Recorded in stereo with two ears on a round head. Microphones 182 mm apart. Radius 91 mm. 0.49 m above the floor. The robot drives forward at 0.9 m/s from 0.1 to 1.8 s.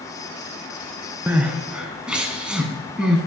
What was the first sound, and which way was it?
Crying, 10° right (ahead or behind).